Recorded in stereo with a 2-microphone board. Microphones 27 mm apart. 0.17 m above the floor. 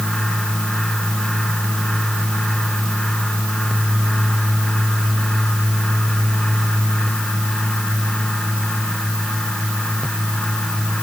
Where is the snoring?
No snoring in this recording.